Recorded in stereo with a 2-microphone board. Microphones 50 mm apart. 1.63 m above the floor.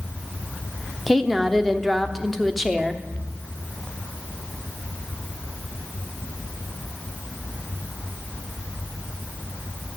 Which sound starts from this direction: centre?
A woman speaking, at 1.1 s.